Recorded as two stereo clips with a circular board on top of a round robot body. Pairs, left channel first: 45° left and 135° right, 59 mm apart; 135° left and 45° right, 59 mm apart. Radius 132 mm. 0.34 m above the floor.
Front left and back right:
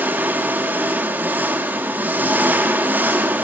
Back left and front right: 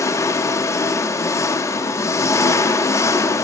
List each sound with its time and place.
0.0 s an engine running: 170° left, 0.9 m